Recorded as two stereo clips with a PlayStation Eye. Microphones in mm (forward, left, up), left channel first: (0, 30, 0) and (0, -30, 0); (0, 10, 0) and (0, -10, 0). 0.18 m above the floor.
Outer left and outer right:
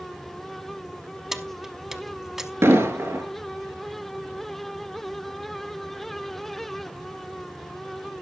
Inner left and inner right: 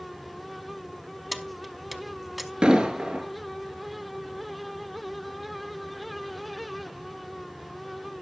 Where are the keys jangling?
5° right (ahead or behind), 0.8 m.